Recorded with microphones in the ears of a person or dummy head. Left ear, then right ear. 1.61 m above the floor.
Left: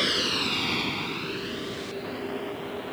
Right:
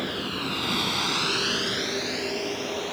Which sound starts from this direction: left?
A vehicle, at 0.0 s.